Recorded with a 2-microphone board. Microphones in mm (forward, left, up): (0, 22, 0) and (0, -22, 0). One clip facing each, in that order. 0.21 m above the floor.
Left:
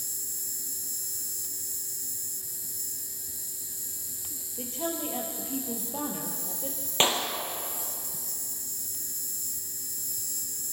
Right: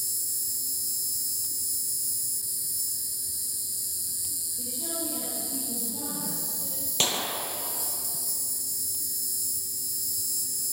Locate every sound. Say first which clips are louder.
0.0 s an insect: right 2 dB; 40° left (ahead or behind), 0.8 m
4.6 s a woman speaking: left 4 dB; 70° left (ahead or behind), 6.5 m
7.0 s a clap: left 3 dB; 30° left (ahead or behind), 4 m